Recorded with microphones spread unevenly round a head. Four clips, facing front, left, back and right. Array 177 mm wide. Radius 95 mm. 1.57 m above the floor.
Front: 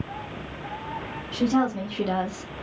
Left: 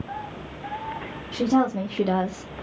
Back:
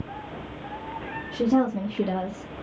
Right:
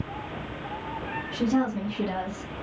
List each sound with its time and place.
1.3 s a woman speaking: 145° left, 0.9 m; by 2.5 s 45° left, 0.5 m